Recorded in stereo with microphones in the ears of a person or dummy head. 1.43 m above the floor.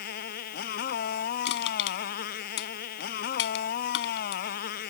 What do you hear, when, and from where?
0.0 s a motorcycle: 55° left (ahead or behind)
1.4 s crushing: 70° left (ahead or behind)